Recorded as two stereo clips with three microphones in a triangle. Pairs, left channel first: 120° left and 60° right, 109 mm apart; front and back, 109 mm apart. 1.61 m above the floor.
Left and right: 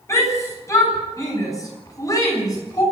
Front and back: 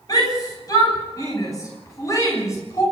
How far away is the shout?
About 9 m.